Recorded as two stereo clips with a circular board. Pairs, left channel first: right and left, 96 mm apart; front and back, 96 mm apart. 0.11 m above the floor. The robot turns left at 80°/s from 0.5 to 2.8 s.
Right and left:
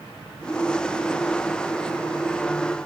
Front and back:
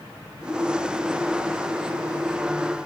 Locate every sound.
Only background noise.